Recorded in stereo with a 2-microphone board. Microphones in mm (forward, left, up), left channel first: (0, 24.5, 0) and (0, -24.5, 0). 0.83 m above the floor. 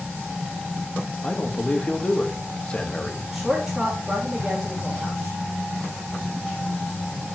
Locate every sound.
1.2 s a man speaking: 25° left (ahead or behind), 1.0 m
3.3 s a woman speaking: 10° right (ahead or behind), 1.7 m